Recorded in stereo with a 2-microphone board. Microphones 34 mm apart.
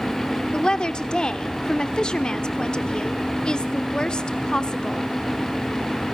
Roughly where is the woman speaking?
Left.